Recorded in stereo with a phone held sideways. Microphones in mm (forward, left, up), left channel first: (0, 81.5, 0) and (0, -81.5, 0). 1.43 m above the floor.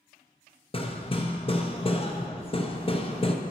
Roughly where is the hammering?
Left.